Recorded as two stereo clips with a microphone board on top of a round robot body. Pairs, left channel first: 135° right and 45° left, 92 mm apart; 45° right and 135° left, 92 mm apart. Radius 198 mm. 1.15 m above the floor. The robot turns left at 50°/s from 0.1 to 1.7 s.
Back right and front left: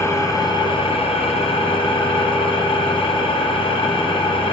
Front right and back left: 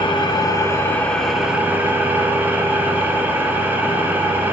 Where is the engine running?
75° right, 0.9 m; by 4.5 s 155° right, 0.9 m.